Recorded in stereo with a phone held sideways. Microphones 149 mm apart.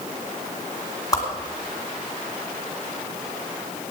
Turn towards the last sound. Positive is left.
turn(degrees=25)  # may be behind; listen again after turning